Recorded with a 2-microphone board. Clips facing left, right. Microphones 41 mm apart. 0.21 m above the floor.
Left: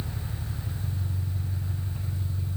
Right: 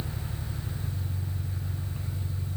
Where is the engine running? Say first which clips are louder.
Even; 5° right (ahead or behind), 9 m.